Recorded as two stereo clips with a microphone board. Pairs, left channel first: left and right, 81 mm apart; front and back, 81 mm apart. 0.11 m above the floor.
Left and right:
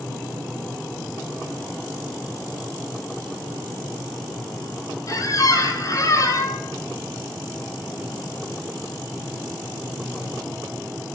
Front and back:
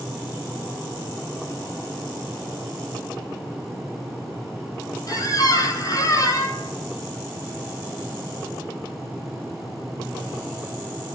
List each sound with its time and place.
5.1 s a squeak: 45° left, 1.2 m